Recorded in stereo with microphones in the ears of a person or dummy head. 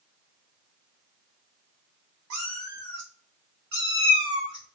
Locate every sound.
2.3 s a cat meowing: 65° right (ahead or behind), 1.5 m; by 4.8 s 20° right (ahead or behind), 1.2 m